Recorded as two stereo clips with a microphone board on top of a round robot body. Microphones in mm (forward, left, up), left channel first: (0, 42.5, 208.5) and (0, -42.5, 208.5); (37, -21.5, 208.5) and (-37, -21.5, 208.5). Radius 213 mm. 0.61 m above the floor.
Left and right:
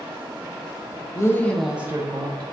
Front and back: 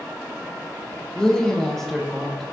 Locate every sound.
1.1 s a woman speaking: 80° left, 1.0 m; by 2.4 s 85° right, 1.2 m